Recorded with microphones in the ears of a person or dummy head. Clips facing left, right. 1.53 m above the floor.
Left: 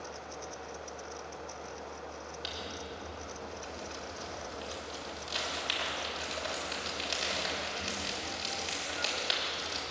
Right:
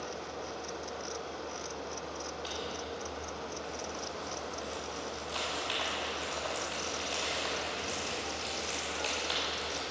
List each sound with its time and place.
2.4 s crumpling: 45° left (ahead or behind), 3.5 m